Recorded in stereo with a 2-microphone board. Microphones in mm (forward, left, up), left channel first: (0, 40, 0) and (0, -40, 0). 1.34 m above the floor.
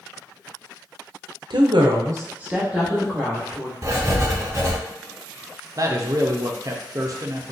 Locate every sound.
1.5 s a woman speaking: 75° right (ahead or behind), 0.6 m; by 3.7 s 5° left (ahead or behind), 1.5 m
3.8 s writing: 40° right (ahead or behind), 0.6 m
5.8 s a man speaking: 45° right (ahead or behind), 0.5 m